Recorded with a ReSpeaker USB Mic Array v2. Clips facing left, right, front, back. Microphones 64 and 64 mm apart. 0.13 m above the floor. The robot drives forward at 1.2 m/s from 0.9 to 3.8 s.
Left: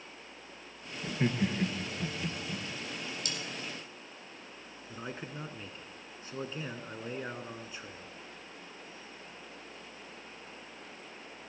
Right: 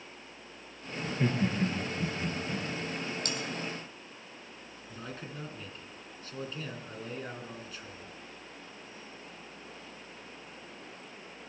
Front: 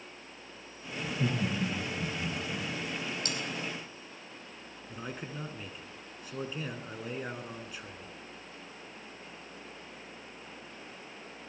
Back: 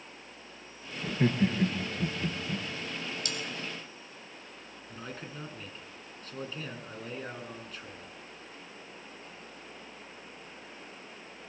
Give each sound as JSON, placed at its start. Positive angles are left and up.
{"t": 1.0, "sound": "laughter", "azimuth_deg": 160, "distance_m": 1.4}
{"t": 3.2, "sound": "cutlery clinking", "azimuth_deg": -50, "distance_m": 2.5}
{"t": 4.9, "sound": "a man speaking", "azimuth_deg": 65, "distance_m": 1.4}